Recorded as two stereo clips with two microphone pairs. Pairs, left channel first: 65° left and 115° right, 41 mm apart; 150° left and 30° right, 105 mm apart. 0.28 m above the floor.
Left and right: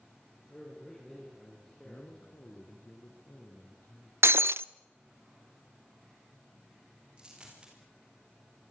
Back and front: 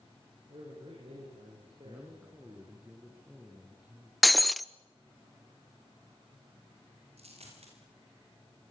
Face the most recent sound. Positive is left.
turn(degrees=-45)